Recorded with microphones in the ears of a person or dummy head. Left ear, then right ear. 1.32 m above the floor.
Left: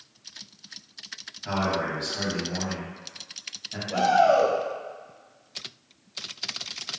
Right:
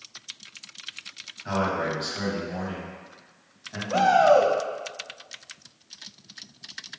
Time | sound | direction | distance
1.4 | a man speaking | centre (ahead or behind) | 1.6 m
3.9 | a shout | 30° right (ahead or behind) | 0.7 m